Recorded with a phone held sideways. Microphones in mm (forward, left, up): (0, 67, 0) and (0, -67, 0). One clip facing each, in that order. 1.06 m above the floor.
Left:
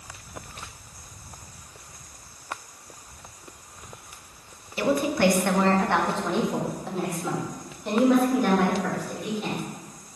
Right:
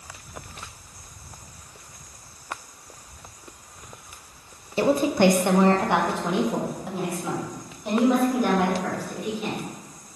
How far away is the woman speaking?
About 0.6 m.